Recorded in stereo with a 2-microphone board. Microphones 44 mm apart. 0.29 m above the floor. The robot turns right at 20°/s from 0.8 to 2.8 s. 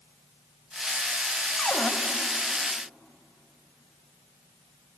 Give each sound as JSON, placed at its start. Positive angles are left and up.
{"t": 1.6, "sound": "a cupboard door", "side_deg": 35, "distance_m": 1.6}